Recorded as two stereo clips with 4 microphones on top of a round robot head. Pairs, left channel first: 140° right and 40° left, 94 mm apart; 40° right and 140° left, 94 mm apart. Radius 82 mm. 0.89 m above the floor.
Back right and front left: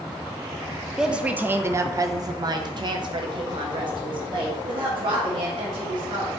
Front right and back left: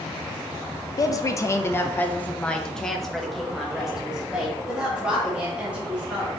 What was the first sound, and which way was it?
A woman speaking, 40° right.